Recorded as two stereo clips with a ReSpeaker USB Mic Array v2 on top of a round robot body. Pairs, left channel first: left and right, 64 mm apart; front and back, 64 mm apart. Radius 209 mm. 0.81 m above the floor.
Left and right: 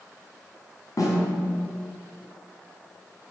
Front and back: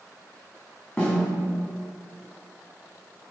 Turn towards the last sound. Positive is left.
turn(degrees=60)